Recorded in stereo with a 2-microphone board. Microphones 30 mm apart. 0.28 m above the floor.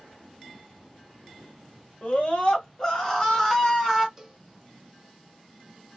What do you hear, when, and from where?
2.0 s a scream: 40° left (ahead or behind), 1.5 m; by 4.1 s 5° right (ahead or behind), 1.3 m
4.2 s a cowbell: 20° right (ahead or behind), 0.9 m